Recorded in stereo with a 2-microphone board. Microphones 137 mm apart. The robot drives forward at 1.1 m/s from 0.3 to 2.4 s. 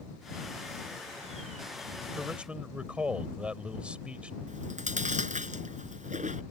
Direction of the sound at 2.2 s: 5° right (ahead or behind).